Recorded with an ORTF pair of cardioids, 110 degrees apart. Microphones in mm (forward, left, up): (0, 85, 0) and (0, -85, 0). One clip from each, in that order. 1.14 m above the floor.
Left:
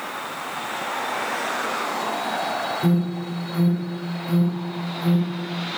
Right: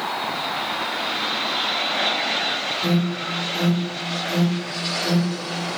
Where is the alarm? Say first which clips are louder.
Right 2 dB; 10° left, 2.5 m.